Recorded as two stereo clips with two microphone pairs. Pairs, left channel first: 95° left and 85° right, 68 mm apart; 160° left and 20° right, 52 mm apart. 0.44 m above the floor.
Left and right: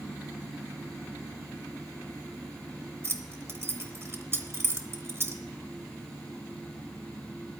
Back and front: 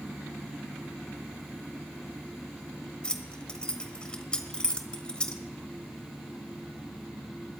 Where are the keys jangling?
130° right, 1.0 m.